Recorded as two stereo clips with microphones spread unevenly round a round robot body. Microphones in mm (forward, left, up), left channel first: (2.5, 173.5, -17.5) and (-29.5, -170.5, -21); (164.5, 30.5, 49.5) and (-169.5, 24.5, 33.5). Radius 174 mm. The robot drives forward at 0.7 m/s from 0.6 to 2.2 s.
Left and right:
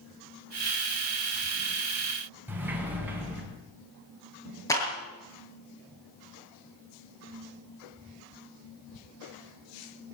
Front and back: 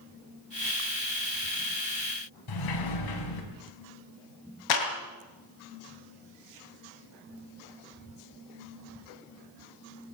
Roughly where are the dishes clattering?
No dishes clattering in this recording.